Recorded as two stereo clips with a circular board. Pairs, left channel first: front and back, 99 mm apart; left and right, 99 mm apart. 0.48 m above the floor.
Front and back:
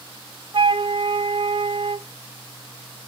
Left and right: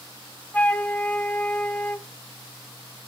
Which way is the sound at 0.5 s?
165° left.